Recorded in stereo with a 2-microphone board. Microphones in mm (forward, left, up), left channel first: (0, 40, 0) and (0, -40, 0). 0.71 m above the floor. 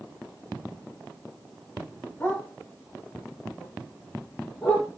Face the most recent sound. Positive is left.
turn(degrees=5)  # may be behind; listen again after turning